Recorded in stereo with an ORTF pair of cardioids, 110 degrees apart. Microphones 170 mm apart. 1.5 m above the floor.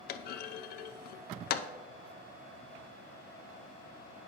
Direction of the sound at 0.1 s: 65° left.